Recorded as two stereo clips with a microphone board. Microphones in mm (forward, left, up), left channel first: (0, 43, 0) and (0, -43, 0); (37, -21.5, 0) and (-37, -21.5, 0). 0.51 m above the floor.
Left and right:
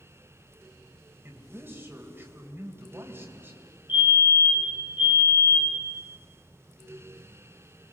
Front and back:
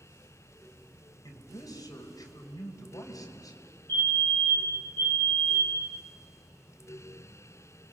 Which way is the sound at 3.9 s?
60° left.